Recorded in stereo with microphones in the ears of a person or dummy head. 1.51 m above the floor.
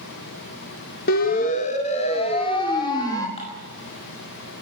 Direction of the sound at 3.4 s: 40° left (ahead or behind).